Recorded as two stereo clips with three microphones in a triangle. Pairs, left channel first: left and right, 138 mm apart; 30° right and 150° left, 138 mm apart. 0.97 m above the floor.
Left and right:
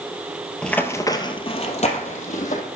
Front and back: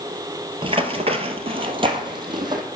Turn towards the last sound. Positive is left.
turn(degrees=95)